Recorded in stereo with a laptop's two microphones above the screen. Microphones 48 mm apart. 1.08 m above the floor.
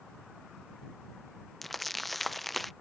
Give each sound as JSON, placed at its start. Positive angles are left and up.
{"t": 1.6, "sound": "crumpling", "side_deg": 5}